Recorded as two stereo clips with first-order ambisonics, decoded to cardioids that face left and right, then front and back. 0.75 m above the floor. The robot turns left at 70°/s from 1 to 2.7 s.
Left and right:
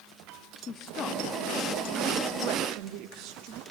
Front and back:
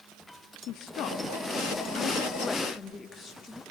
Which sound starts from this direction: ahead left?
A woman speaking, at 0.7 s.